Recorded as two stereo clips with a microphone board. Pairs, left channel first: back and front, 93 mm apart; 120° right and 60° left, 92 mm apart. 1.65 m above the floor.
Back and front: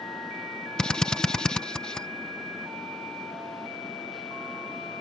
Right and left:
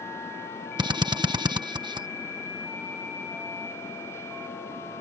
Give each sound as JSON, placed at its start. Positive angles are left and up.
{"t": 0.8, "sound": "a drill", "azimuth_deg": 95}